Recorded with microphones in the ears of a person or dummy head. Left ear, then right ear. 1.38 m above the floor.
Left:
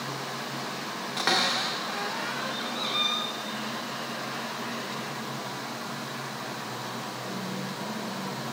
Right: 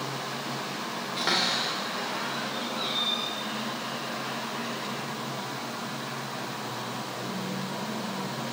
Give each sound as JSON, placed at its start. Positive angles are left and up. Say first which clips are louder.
{"t": 1.2, "sound": "a cupboard door", "louder": "left 1 dB", "side_deg": 25, "distance_m": 0.8}